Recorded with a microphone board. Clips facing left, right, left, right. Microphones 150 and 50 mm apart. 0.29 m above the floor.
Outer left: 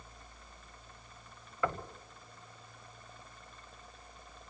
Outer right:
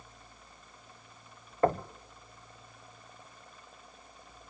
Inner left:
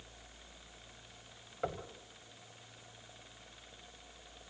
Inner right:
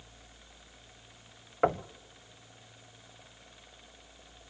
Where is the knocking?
45° right (ahead or behind), 0.9 m.